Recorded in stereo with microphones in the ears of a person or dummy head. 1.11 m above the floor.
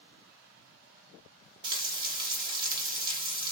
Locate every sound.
1.6 s frying: 25° right (ahead or behind), 0.9 m